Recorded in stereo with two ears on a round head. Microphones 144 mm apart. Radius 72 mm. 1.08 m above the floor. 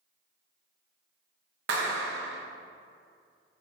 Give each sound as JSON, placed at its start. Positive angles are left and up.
{"t": 1.7, "sound": "a clap", "side_deg": -75, "distance_m": 1.0}